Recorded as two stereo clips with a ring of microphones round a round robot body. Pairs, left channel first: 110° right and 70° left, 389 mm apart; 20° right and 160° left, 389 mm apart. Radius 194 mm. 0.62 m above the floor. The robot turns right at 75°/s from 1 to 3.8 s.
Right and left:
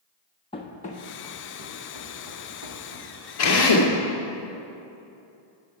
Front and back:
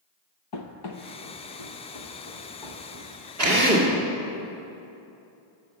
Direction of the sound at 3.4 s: 160° right.